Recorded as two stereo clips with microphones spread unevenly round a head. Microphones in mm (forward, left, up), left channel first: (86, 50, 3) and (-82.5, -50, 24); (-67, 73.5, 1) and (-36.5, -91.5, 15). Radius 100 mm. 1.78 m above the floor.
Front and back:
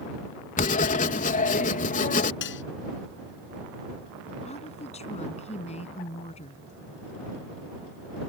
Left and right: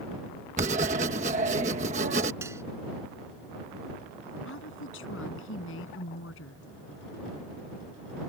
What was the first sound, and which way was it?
Writing, 25° right.